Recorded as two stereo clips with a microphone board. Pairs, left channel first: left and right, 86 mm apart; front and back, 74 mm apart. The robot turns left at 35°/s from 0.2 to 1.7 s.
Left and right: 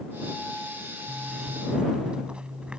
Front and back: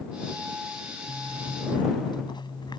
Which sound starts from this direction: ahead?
A zipper, at 1.1 s.